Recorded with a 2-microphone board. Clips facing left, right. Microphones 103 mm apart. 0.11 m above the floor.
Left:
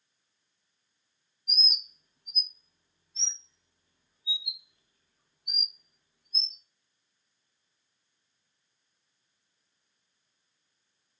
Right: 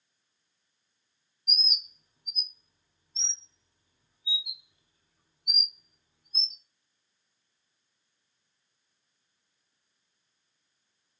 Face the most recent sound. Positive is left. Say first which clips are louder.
# even
turn(degrees=-20)  # may be behind; listen again after turning